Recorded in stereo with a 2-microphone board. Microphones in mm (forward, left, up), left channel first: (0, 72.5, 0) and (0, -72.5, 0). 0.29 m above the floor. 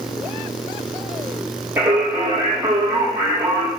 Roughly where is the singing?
Centre.